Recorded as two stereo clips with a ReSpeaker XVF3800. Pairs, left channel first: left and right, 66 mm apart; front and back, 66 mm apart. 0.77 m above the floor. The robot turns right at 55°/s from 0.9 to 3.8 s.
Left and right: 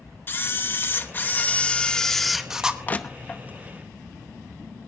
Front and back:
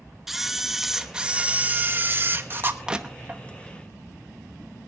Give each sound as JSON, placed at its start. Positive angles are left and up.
{"t": 0.3, "sound": "a camera shutter", "azimuth_deg": 100, "distance_m": 1.0}
{"t": 2.9, "sound": "crushing", "azimuth_deg": 120, "distance_m": 0.9}